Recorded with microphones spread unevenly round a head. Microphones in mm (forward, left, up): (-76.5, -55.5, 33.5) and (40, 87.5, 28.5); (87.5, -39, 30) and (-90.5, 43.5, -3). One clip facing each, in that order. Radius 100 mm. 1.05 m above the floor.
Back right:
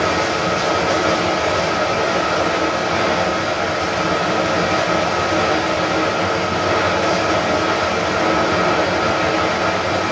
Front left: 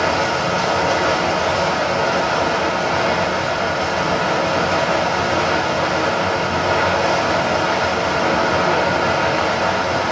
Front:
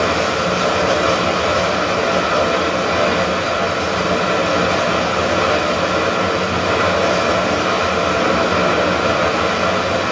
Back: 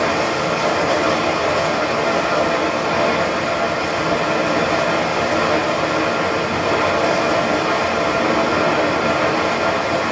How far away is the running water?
About 1.1 m.